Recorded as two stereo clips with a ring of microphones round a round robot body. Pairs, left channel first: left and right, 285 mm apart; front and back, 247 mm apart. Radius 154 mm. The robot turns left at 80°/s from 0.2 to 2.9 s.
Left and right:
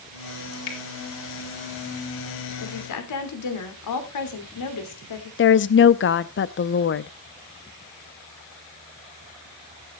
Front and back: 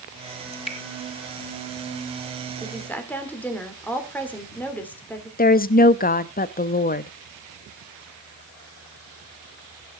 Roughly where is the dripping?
Left.